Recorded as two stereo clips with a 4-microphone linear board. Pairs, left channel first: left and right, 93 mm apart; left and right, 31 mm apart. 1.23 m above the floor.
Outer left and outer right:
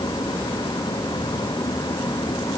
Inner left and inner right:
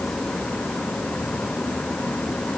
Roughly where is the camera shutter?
I don't hear a camera shutter.